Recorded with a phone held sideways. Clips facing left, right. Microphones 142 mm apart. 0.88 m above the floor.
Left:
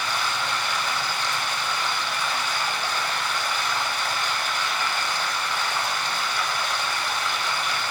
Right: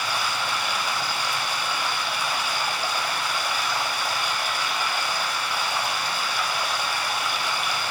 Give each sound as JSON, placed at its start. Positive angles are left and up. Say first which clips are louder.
{"t": 0.0, "sound": "running water", "louder": "even", "side_deg": -10, "distance_m": 1.1}